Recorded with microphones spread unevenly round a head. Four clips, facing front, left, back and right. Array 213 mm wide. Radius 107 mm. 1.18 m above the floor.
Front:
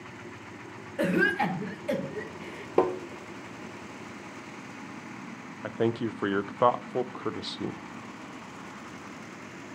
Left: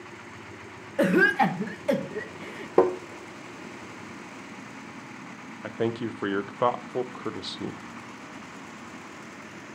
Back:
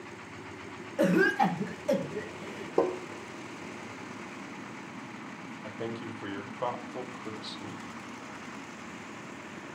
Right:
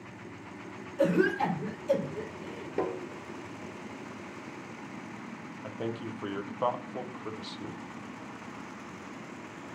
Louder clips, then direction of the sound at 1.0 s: Left 4 dB, back 1 dB; 95° left.